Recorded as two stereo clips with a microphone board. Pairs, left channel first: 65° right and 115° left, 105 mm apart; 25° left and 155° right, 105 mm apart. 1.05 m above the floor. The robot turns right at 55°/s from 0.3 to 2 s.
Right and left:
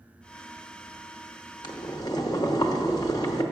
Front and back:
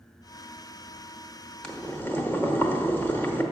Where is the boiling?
55° right, 0.8 m; by 3.4 s 35° right, 0.8 m.